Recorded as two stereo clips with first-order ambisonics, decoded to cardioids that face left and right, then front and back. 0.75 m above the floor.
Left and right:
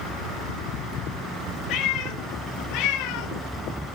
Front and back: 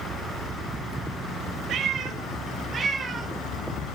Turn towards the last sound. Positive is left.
turn(degrees=105)